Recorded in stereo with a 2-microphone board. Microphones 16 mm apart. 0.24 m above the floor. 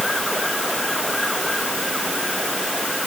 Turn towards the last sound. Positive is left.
No sound to turn to.